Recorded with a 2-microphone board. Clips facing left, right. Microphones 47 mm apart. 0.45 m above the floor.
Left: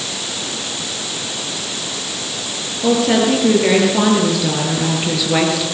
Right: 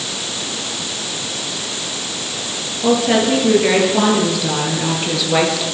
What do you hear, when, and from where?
2.8 s a woman speaking: centre (ahead or behind), 8 m; by 5.7 s 5° left (ahead or behind), 6.5 m